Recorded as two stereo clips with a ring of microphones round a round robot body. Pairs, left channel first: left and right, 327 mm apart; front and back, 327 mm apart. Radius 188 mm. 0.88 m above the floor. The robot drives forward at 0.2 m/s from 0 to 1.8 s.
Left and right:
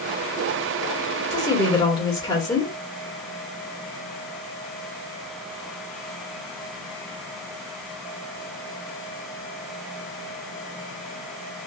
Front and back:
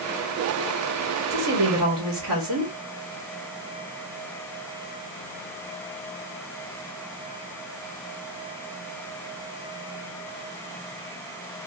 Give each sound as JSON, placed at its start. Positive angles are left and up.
{"t": 1.3, "sound": "a woman speaking", "azimuth_deg": 160, "distance_m": 1.3}